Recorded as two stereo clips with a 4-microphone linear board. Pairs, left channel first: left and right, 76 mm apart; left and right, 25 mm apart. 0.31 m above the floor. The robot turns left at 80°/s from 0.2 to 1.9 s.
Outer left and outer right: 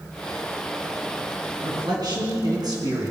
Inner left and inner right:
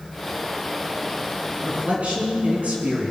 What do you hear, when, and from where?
1.6 s a man speaking: 70° right (ahead or behind), 4 m; by 3.1 s 60° right (ahead or behind), 4 m